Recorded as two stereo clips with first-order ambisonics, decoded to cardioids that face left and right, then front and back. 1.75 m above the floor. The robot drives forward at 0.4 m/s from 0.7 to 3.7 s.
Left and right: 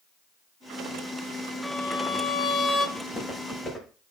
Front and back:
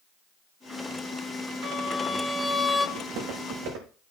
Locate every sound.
1.6 s a violin: 40° left, 1.2 m; by 2.9 s 95° left, 1.1 m
3.0 s footsteps: 160° left, 6 m; by 3.9 s 165° left, 6.5 m